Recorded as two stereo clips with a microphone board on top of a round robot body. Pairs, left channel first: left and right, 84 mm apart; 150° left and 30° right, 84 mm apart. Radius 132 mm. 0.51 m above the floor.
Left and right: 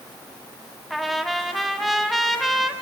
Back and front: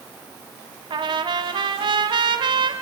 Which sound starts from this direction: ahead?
A trumpet, at 0.9 s.